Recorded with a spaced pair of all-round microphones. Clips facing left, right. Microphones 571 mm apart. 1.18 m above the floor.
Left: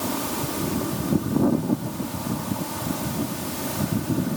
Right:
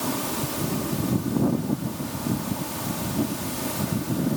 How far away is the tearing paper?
I don't hear tearing paper.